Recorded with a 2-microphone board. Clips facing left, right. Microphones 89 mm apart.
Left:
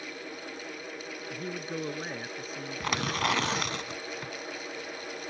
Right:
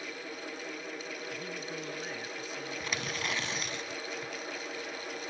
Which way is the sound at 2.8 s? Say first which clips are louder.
Left 9 dB; 75° left (ahead or behind).